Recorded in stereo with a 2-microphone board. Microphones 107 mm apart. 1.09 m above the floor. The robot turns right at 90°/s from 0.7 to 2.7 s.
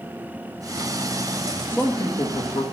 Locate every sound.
1.7 s a man speaking: 15° left, 1.7 m; by 2.6 s 100° left, 1.7 m